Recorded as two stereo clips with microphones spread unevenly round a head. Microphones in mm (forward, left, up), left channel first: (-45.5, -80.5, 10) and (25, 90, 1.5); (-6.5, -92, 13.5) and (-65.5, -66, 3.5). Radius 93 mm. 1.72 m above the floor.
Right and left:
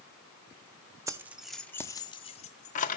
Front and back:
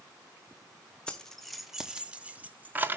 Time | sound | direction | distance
1.1 | keys jangling | 10° left | 0.7 m